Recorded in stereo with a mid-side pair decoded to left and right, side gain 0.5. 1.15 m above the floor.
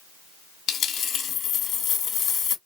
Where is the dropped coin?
55° left, 1.3 m.